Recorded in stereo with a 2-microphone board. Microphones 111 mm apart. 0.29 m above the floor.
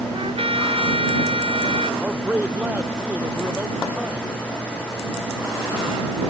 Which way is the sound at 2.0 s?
15° right (ahead or behind).